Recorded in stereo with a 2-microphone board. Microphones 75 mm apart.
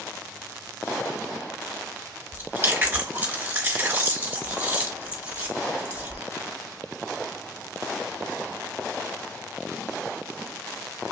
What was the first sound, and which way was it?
Chewing, 30° right (ahead or behind).